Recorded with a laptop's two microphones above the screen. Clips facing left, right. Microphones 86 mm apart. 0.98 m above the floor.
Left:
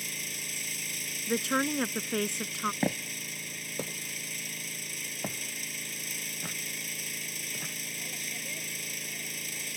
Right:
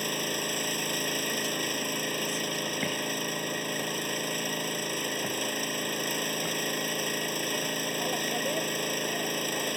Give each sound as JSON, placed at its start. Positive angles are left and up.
{"t": 0.0, "sound": "an engine running", "side_deg": -60}
{"t": 1.3, "sound": "a woman speaking", "side_deg": 85}
{"t": 2.8, "sound": "footsteps", "side_deg": 30}